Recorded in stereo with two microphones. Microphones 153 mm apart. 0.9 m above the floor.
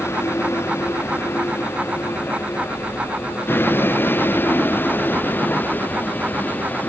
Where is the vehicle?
15° left (ahead or behind); by 6.9 s 10° left (ahead or behind).